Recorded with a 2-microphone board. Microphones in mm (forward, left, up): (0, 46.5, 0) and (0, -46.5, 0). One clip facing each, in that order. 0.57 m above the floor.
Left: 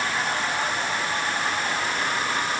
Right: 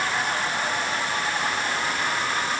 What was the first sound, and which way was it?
Only background noise.